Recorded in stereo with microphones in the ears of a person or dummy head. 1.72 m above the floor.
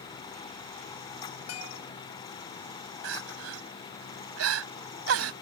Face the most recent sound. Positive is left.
turn(degrees=-80)